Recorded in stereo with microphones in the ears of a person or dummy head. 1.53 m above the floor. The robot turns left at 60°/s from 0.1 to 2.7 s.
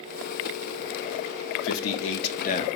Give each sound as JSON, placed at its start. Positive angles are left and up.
{"t": 1.6, "sound": "a man speaking", "azimuth_deg": 105, "distance_m": 0.6}